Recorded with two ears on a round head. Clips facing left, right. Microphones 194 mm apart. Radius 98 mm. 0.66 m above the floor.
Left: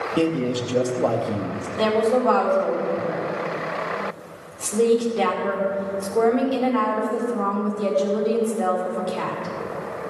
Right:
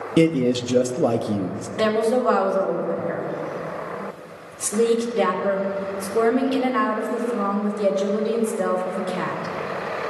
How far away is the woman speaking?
About 2 m.